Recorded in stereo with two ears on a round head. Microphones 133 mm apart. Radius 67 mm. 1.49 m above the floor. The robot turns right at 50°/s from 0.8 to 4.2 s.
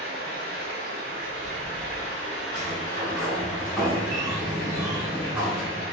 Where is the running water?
85° right, 0.9 m; by 5.9 s 85° left, 0.9 m.